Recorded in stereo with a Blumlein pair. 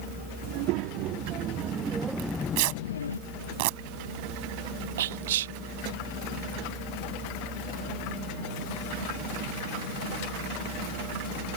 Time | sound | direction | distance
0.4 | a child speaking | 45° right | ?
2.2 | tearing paper | 45° right | ?
5.0 | whispering | 60° right | ?